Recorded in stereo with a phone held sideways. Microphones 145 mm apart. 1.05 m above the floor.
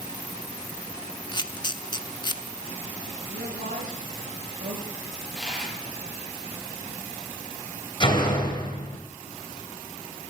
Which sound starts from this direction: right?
A woman speaking, at 3.3 s.